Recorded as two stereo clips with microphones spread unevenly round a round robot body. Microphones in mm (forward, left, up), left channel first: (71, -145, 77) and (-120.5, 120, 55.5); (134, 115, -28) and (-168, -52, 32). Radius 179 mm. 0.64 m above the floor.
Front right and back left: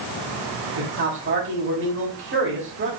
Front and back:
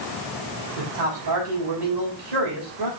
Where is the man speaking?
Straight behind, 3.5 m.